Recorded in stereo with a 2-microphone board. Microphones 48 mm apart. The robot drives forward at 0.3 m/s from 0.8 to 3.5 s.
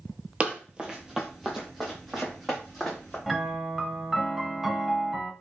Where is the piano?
5° right (ahead or behind), 0.7 m.